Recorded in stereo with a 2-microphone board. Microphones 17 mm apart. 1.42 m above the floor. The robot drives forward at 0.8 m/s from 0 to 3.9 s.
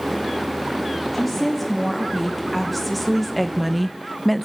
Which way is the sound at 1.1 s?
Centre (ahead or behind).